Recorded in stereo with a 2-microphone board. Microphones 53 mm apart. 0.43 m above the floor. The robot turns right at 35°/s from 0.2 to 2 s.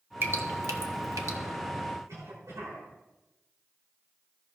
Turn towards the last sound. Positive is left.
turn(degrees=-70)  # may be behind; listen again after turning